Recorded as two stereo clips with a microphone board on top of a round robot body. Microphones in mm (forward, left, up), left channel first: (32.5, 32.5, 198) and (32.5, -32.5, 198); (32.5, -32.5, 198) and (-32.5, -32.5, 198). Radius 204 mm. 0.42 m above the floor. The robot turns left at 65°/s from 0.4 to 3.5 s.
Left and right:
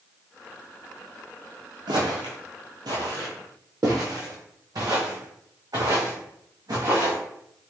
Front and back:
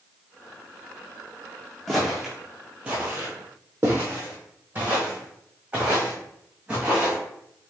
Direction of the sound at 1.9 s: 90° right.